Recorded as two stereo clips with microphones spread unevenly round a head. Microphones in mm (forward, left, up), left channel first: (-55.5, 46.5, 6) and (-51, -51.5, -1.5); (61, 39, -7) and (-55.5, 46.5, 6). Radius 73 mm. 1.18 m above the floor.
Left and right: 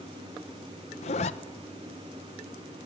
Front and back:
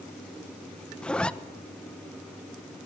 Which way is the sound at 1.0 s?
75° left.